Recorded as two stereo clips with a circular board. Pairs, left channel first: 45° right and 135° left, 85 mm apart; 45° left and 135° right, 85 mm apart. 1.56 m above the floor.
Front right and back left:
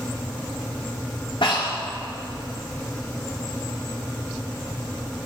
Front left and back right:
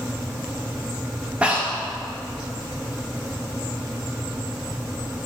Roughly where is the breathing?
Ahead right.